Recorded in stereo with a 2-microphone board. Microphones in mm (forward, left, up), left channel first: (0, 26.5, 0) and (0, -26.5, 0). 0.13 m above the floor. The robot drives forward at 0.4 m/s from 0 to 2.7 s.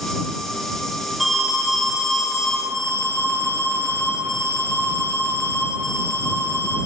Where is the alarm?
Centre (ahead or behind), 1.3 m.